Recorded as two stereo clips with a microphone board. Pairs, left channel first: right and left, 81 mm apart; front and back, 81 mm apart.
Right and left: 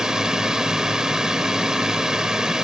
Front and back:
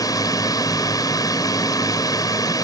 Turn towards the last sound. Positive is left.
turn(degrees=10)